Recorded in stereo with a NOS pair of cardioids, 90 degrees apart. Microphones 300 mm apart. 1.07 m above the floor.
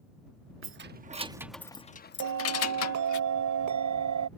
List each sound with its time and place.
0.6 s keys jangling: 40° right; by 3.2 s 65° left
2.2 s a bell: 65° right